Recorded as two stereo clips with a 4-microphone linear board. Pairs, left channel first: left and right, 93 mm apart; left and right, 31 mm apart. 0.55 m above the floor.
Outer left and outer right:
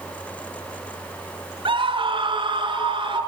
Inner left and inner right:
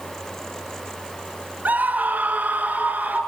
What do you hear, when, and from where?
1.6 s a scream: 65° right (ahead or behind), 5 m; by 3.2 s 60° right (ahead or behind), 7 m